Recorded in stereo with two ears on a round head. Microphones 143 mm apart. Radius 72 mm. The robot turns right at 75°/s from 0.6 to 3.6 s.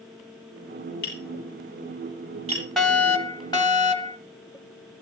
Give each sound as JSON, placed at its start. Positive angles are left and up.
{"t": 1.0, "sound": "tapping", "side_deg": 70, "distance_m": 8.5}
{"t": 2.8, "sound": "a fire alarm", "azimuth_deg": 5, "distance_m": 1.1}